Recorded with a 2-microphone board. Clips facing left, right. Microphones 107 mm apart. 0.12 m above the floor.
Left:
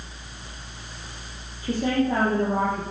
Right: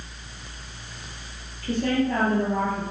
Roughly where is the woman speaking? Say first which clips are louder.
Even; centre.